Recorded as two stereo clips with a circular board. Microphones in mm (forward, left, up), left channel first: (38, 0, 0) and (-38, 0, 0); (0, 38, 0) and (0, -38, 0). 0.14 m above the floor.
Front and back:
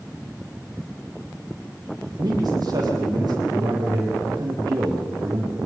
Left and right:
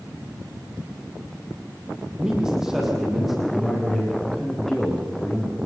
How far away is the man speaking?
About 6 m.